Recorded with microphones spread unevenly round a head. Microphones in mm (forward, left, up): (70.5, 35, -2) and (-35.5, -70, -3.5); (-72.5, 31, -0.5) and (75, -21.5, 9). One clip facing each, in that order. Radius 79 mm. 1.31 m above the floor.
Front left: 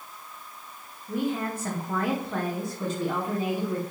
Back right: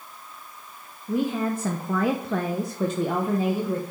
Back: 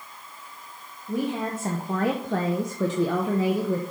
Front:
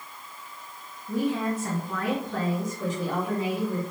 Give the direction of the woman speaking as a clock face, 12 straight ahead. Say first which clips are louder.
Back right 4 dB, front 1 dB; 4 o'clock.